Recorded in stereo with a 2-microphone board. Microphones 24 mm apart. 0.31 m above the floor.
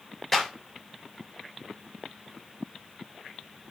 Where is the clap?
10° left (ahead or behind), 5.5 m.